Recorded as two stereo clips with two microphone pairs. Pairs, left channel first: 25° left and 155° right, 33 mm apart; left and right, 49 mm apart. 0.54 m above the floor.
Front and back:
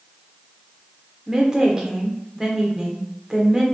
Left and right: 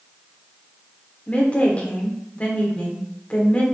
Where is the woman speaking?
145° left, 1.1 m.